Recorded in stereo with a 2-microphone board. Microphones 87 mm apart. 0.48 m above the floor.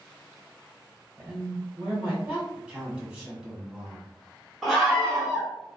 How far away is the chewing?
No chewing in this recording.